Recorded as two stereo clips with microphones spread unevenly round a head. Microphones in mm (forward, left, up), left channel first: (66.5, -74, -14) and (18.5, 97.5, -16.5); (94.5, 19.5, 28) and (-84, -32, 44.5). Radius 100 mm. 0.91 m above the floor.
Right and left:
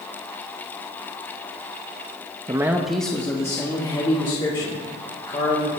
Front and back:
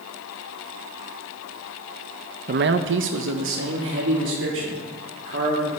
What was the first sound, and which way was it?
A man speaking, 170° left.